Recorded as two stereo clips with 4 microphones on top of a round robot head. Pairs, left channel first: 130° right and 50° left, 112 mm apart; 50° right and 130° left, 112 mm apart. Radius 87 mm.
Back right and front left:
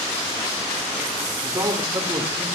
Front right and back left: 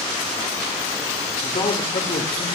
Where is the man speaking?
5° right, 2 m; by 2.5 s 15° right, 3 m.